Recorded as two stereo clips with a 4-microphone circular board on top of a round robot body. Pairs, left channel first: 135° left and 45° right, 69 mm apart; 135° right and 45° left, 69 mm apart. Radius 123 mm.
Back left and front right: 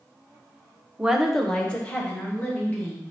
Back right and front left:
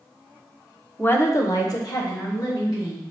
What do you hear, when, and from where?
1.0 s a woman speaking: 105° right, 1.0 m; by 3.0 s 160° right, 3.5 m